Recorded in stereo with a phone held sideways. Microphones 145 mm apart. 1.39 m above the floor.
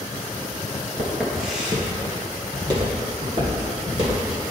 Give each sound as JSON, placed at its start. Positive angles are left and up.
{"t": 1.0, "sound": "footsteps", "side_deg": 10, "distance_m": 1.6}